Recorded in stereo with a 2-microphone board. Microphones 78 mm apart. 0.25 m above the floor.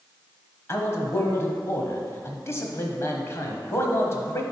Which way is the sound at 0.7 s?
40° left (ahead or behind).